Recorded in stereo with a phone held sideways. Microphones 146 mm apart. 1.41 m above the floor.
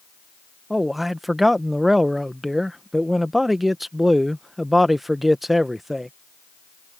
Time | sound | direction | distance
0.7 | a man speaking | centre (ahead or behind) | ?